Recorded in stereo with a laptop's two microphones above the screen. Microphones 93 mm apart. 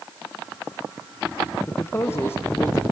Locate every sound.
1.7 s a man speaking: 25° left (ahead or behind), 1.0 m